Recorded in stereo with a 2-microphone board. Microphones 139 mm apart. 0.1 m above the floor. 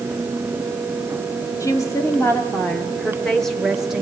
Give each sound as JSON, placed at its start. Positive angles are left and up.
{"t": 1.6, "sound": "a woman speaking", "side_deg": 20, "distance_m": 3.0}